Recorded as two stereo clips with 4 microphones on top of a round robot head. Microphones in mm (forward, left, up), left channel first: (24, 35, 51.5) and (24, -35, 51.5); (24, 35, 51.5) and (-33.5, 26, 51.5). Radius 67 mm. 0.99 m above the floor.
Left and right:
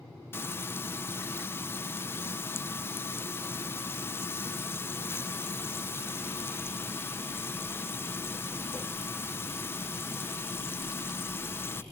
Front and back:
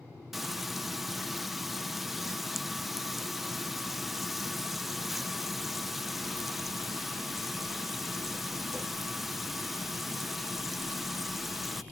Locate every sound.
0.3 s frying: 105° left, 0.6 m